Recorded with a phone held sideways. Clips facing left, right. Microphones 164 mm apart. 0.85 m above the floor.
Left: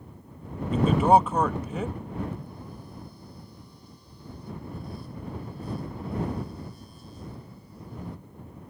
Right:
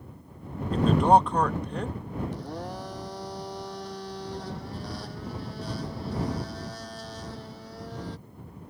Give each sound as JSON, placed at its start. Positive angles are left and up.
{"t": 0.7, "sound": "a man speaking", "side_deg": 5}
{"t": 2.3, "sound": "a blender", "side_deg": -85}